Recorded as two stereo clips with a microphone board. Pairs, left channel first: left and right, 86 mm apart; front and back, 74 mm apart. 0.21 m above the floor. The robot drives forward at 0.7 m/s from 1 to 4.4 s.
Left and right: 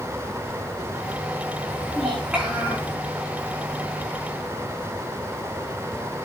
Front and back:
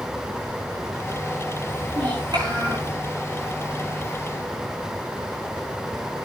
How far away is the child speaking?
About 9.5 m.